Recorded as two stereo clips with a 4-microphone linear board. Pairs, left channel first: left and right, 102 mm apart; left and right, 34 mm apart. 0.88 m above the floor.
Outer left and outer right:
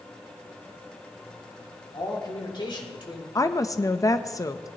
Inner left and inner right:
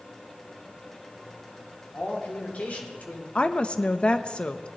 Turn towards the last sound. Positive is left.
turn(degrees=30)  # may be behind; listen again after turning